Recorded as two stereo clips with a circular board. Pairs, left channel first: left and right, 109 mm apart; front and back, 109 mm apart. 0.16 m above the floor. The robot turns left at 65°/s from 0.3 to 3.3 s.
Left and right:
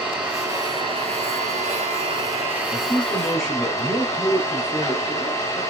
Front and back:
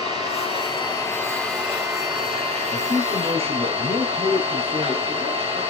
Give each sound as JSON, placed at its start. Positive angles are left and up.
{"t": 0.0, "sound": "an engine running", "azimuth_deg": -15, "distance_m": 5.5}
{"t": 2.7, "sound": "a man speaking", "azimuth_deg": -140, "distance_m": 4.0}